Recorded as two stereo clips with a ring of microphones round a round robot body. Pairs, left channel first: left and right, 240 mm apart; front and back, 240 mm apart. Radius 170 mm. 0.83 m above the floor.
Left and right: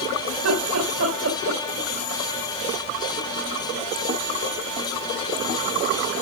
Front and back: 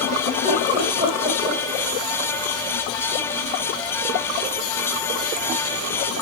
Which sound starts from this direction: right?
Laughter, at 0.3 s.